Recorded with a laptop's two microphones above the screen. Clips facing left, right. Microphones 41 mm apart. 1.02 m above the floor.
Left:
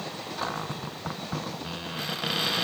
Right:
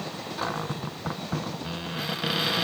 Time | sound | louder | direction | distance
0.4 | a cupboard door | right 2 dB | 5° right (ahead or behind) | 0.6 m